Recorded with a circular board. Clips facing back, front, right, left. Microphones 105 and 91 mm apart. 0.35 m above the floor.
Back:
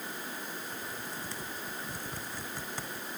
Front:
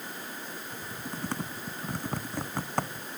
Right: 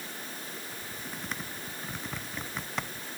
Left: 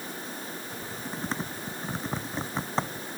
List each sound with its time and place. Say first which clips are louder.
0.7 s typing on a keyboard: front 2 dB, left 5 dB; 30° left